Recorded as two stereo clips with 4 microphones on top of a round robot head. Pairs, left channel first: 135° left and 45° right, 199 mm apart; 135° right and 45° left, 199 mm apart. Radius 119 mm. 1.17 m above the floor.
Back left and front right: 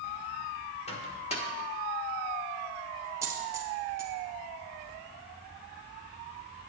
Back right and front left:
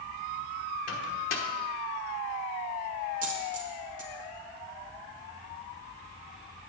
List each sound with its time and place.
0.9 s a microwave: 165° right, 1.1 m
3.2 s a dropped coin: 25° left, 0.8 m